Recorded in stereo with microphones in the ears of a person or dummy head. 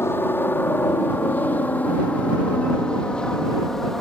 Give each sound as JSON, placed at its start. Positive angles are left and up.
{"t": 0.0, "sound": "a helicopter", "side_deg": 10}